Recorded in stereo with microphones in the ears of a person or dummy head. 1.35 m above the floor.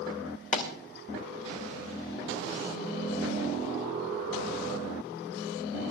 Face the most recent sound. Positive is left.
turn(degrees=50)  # may be behind; listen again after turning